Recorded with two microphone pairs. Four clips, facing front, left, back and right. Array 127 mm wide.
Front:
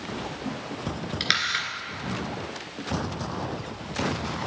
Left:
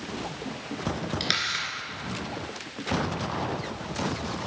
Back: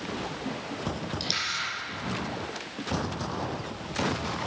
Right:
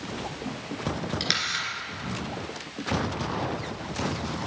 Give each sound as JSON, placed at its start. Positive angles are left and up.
{"t": 1.2, "sound": "a camera shutter", "azimuth_deg": 10, "distance_m": 3.0}